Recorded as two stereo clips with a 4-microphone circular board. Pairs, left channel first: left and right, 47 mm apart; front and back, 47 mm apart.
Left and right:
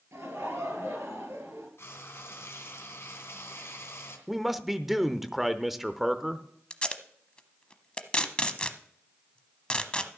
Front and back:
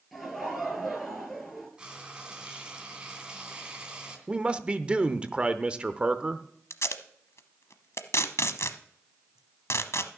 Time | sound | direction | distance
0.1 | laughter | 90° right | 7.5 m
1.8 | frying | 110° left | 2.5 m
4.3 | a man speaking | 170° right | 0.8 m
6.7 | tape being pulled | 20° left | 0.9 m